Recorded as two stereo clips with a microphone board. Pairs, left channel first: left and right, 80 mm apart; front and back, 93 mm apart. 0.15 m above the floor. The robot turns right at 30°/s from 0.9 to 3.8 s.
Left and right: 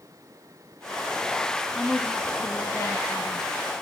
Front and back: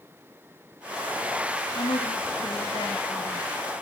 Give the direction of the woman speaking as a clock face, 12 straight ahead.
12 o'clock.